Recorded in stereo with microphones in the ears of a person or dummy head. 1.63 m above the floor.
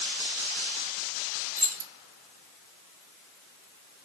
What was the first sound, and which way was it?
Keys jangling, 45° right (ahead or behind).